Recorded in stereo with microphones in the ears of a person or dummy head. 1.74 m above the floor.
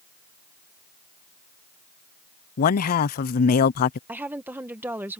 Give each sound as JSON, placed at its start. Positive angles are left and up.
{"t": 2.6, "sound": "a man speaking", "side_deg": 45}
{"t": 4.1, "sound": "a woman speaking", "side_deg": -10}